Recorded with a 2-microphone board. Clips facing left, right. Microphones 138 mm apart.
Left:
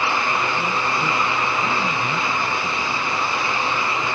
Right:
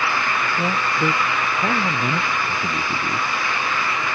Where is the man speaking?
35° right (ahead or behind); by 3.3 s 45° right (ahead or behind).